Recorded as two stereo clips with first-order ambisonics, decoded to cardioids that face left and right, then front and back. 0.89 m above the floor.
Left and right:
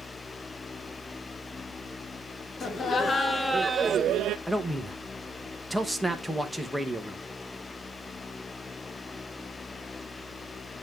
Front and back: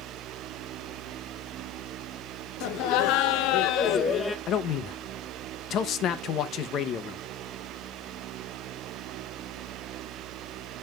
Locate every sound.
2.6 s laughter: 25° left, 1.3 m; by 4.4 s 80° right, 0.7 m
4.5 s a man speaking: straight ahead, 0.8 m